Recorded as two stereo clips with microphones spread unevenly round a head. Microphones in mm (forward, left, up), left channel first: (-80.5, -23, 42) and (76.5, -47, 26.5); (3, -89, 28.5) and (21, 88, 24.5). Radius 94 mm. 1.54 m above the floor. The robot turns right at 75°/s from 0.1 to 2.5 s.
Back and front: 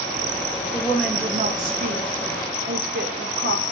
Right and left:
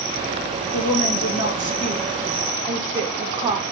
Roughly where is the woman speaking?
Behind right.